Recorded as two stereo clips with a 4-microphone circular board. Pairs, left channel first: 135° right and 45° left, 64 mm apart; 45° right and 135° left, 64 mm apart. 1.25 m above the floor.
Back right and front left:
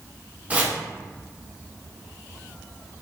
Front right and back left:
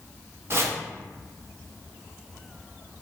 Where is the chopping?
105° left, 0.6 m.